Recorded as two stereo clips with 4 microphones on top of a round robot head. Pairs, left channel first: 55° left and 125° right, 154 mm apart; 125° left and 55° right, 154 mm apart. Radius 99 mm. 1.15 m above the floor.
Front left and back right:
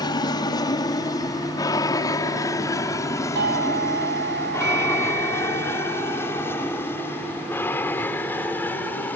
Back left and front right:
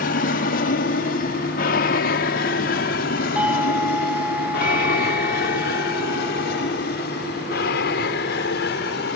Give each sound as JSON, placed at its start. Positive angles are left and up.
{"t": 0.0, "sound": "an aircraft", "azimuth_deg": 115}
{"t": 3.4, "sound": "a doorbell", "azimuth_deg": -135}